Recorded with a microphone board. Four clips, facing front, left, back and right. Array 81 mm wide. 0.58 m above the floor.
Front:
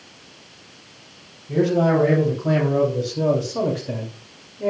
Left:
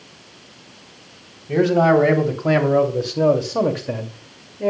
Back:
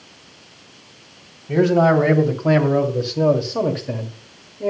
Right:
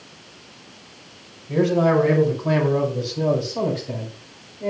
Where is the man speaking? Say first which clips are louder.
Left 3 dB, back 3 dB; 135° left, 3.5 m; by 4.7 s 90° left, 1.9 m.